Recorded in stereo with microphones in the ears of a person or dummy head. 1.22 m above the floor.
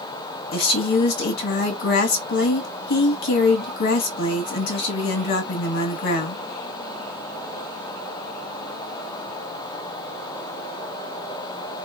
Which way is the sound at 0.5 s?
70° left (ahead or behind).